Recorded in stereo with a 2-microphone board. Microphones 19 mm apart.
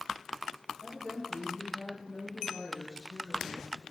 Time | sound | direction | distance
0.8 | a woman speaking | 35° left (ahead or behind) | 7 m